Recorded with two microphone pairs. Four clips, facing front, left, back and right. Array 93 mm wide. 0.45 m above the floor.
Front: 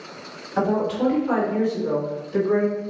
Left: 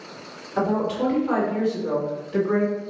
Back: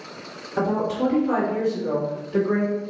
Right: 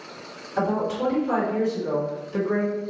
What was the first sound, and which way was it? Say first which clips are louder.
A woman speaking: left 1 dB, front 1 dB; 40° left.